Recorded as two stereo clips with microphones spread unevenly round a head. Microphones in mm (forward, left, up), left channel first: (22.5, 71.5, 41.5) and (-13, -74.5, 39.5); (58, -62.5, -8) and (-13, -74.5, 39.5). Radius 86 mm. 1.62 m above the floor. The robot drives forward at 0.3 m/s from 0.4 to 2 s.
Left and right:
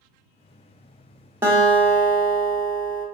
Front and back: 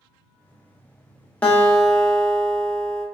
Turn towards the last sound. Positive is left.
turn(degrees=-170)